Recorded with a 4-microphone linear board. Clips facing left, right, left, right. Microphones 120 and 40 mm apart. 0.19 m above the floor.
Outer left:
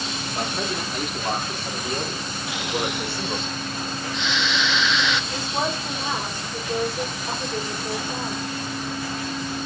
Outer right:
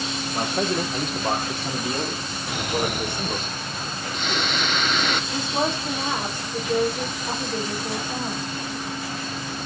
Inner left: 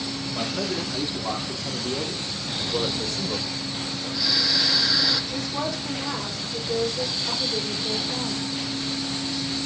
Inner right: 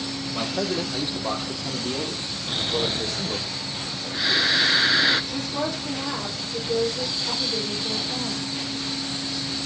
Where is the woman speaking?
20° right (ahead or behind), 7 m.